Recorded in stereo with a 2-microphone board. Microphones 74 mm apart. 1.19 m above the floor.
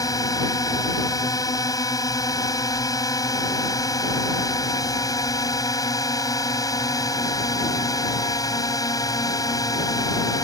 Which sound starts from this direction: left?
A drone, at 0.0 s.